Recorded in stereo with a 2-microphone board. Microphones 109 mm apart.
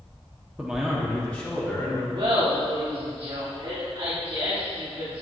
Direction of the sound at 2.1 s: 50° right (ahead or behind).